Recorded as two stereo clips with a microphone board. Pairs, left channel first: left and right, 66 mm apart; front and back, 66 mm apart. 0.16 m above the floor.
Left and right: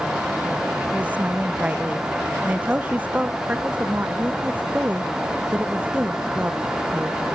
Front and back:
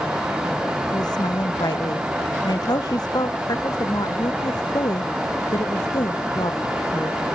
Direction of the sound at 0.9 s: 20° right.